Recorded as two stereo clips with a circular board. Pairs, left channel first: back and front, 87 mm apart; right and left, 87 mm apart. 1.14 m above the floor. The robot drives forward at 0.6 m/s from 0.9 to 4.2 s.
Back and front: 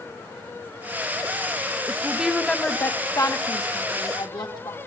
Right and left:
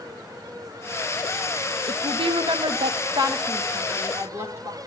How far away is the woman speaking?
About 0.7 m.